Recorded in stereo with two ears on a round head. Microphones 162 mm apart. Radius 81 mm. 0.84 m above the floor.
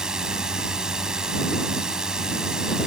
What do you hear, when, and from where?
0.0 s a drone: 5° right (ahead or behind)